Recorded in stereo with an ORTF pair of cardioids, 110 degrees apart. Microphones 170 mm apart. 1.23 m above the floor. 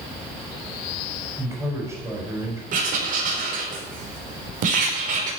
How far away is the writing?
About 5 m.